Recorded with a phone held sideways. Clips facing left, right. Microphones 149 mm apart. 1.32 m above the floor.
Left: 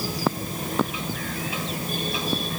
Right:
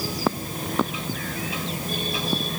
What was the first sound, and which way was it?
Only background noise.